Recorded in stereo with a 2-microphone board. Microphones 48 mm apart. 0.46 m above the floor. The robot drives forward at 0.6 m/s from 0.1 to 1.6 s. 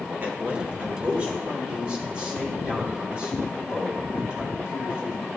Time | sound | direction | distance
0.2 | a man speaking | 35° right (ahead or behind) | 1.0 m